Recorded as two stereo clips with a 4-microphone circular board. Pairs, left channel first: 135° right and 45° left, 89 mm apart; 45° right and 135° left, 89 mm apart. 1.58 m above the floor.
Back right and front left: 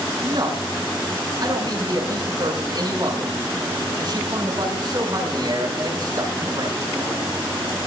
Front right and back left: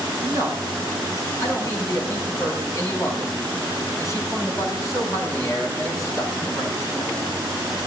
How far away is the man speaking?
About 6.5 m.